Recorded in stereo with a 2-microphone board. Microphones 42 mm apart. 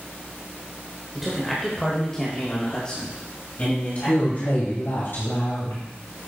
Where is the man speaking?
5° right (ahead or behind), 1.6 m; by 4.8 s 40° left (ahead or behind), 3 m.